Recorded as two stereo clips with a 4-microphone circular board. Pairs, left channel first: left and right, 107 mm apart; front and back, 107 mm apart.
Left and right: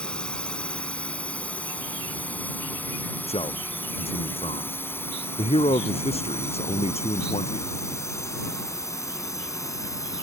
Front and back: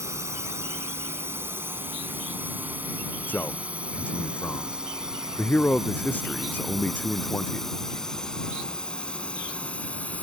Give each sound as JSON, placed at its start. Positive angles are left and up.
{"t": 0.0, "sound": "a drone", "azimuth_deg": 160}
{"t": 3.3, "sound": "a man speaking", "azimuth_deg": 75}